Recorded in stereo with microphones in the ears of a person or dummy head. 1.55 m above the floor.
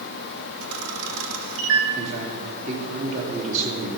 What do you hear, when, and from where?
0.6 s a camera shutter: 75° right (ahead or behind), 1.3 m
1.9 s a man speaking: 45° right (ahead or behind), 3 m